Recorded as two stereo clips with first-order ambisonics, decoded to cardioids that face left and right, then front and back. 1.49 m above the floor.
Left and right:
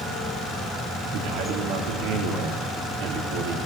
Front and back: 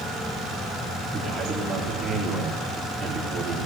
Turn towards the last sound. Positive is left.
turn(degrees=-100)